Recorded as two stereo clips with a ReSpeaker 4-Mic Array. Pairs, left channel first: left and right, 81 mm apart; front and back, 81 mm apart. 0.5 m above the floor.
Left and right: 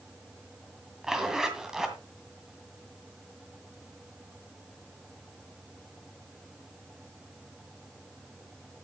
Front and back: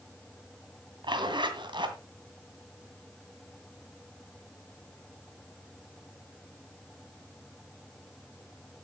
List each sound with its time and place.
1.0 s a zipper: 175° right, 2 m